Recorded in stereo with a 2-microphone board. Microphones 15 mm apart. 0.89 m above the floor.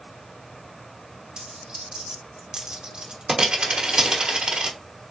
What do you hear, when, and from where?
1.4 s a dropped coin: 75° right (ahead or behind), 1.1 m